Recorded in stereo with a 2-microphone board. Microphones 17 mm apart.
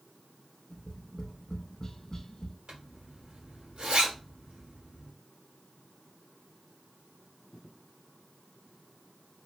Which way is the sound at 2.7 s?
60° right (ahead or behind).